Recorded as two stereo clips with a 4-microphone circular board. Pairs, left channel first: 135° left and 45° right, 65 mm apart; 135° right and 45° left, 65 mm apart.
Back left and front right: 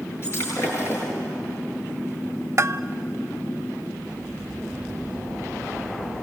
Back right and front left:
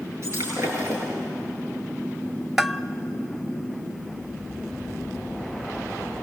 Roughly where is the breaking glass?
Left.